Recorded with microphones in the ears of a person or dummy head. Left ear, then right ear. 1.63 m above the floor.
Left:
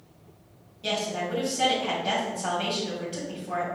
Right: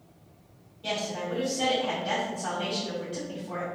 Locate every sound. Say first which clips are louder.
0.8 s a woman speaking: left 3 dB; 15° left (ahead or behind), 1.8 m